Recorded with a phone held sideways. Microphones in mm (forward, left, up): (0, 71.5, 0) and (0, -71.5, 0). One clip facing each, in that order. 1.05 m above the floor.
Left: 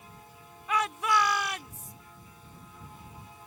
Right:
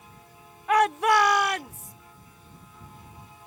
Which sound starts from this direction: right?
A shout, at 0.7 s.